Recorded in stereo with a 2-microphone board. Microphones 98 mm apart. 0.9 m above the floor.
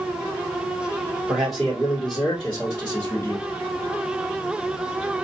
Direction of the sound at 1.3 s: 5° right (ahead or behind).